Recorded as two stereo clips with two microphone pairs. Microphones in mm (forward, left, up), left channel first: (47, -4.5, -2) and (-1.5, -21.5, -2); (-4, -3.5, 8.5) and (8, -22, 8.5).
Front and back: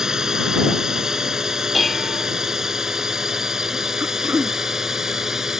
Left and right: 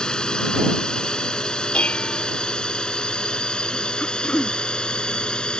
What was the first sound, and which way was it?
A drone, 125° left.